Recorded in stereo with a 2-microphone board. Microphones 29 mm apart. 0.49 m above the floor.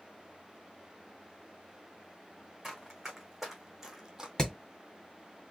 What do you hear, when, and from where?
2.6 s running footsteps: 10° right (ahead or behind), 3 m; by 4.3 s 20° right (ahead or behind), 1.1 m
4.4 s hammering: 20° left (ahead or behind), 1.7 m